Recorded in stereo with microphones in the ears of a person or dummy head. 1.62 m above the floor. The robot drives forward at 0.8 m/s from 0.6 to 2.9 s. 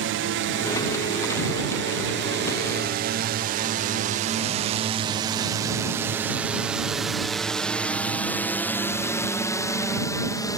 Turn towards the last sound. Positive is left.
turn(degrees=15)  # may be behind; listen again after turning